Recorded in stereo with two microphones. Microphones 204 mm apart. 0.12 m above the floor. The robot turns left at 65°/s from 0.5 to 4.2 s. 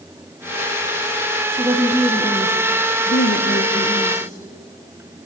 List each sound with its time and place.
1.5 s a woman speaking: 150° right, 3 m; by 4.4 s 35° left, 3 m